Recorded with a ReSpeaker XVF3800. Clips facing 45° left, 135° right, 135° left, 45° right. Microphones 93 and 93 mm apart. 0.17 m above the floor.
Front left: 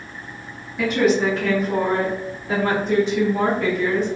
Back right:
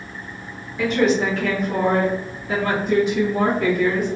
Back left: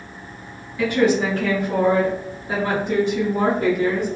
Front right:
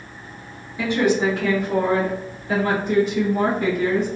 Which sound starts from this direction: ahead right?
A woman speaking, at 0.8 s.